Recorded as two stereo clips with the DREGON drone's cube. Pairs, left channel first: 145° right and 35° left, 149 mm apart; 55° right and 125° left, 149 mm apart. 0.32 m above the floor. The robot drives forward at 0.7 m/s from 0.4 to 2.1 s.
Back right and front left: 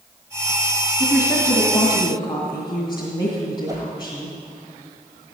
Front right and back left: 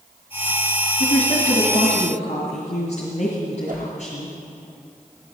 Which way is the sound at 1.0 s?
70° right.